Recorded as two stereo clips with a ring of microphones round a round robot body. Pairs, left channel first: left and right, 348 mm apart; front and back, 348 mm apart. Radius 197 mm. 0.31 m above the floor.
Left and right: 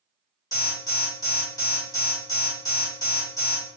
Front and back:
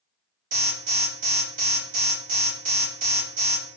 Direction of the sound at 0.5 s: 160° left.